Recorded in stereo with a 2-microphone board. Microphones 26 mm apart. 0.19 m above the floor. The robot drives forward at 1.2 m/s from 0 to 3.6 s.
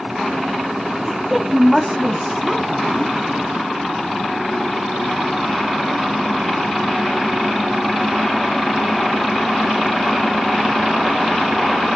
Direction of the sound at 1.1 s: 5° right (ahead or behind).